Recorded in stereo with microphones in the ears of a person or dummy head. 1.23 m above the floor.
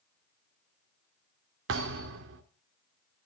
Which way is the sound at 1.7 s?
55° right (ahead or behind).